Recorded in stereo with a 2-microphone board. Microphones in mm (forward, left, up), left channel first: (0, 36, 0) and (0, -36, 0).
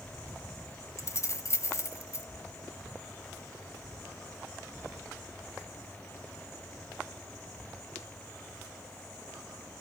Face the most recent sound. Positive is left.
turn(degrees=40)  # may be behind; listen again after turning